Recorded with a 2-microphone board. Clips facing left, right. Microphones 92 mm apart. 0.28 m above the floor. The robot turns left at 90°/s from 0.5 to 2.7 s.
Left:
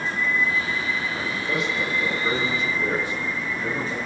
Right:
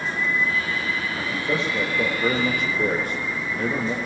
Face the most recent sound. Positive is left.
turn(degrees=-130)